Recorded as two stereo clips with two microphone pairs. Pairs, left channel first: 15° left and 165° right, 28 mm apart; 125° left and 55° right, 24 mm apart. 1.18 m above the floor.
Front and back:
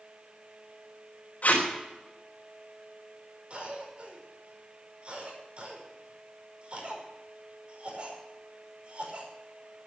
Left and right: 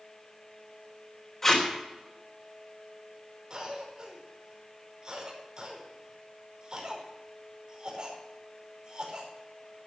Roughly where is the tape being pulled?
Ahead left.